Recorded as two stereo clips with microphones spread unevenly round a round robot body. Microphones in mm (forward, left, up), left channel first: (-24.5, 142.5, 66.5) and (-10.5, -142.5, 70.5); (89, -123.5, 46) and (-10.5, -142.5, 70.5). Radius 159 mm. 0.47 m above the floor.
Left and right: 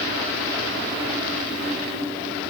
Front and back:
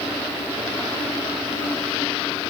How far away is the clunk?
I don't hear a clunk.